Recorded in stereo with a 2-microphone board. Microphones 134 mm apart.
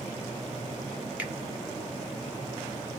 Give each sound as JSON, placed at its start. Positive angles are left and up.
{"t": 1.2, "sound": "a finger snap", "side_deg": -10, "distance_m": 0.8}